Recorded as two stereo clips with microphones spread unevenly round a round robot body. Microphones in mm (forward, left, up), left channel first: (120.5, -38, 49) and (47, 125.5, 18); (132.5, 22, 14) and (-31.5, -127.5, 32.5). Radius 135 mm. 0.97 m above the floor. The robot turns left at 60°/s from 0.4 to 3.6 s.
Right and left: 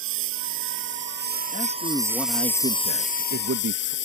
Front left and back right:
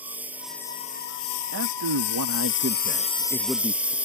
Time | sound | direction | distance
0.0 | a lawn mower | 140° left | ?
1.5 | a man speaking | 120° right | ?